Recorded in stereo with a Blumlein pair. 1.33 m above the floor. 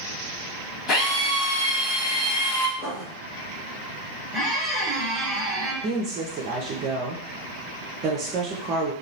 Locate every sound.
0.9 s a drill: 25° left, 1.2 m
2.8 s writing: 25° left, 0.9 m
4.3 s a squeak: straight ahead, 1.1 m
5.8 s a woman speaking: 35° right, 0.5 m